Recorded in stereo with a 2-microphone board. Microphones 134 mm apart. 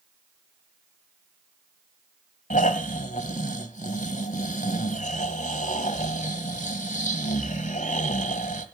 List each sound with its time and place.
2.5 s snoring: 70° left (ahead or behind), 1.8 m